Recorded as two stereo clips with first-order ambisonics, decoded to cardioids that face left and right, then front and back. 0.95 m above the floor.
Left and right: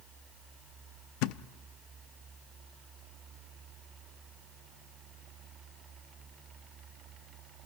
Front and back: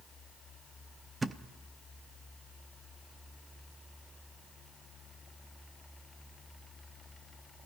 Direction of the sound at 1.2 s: 100° left.